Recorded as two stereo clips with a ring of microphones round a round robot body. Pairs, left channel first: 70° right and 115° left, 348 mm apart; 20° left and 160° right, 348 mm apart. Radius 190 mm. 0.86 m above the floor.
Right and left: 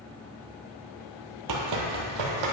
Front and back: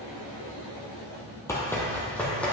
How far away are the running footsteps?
About 1.2 m.